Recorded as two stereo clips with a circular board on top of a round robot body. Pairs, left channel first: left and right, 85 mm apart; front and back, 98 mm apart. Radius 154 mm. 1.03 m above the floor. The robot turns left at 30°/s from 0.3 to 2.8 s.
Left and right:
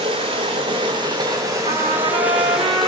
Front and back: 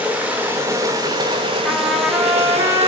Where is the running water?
105° right, 1.0 m; by 2.9 s straight behind, 1.0 m.